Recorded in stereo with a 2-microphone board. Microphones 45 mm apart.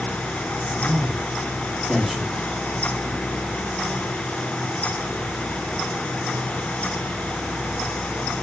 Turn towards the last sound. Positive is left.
turn(degrees=-5)  # may be behind; listen again after turning